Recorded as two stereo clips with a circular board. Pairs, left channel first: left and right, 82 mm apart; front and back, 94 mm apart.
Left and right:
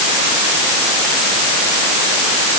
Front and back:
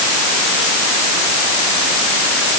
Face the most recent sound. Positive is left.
No sound to turn to.